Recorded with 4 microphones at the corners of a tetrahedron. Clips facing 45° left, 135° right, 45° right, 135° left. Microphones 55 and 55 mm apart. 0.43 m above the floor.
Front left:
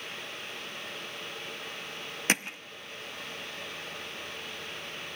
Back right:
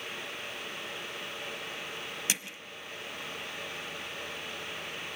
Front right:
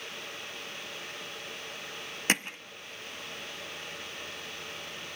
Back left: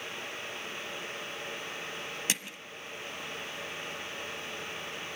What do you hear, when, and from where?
2.3 s hammering: straight ahead, 0.7 m